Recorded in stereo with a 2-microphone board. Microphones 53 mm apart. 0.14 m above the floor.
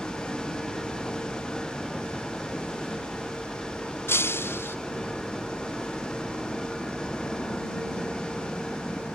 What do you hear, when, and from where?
0.0 s a helicopter: 5° left (ahead or behind)
4.1 s breaking glass: 50° left (ahead or behind)